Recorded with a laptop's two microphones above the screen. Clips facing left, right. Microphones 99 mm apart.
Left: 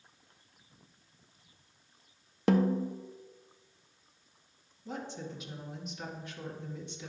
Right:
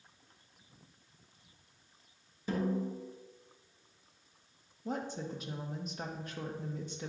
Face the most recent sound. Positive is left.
turn(degrees=-40)  # may be behind; listen again after turning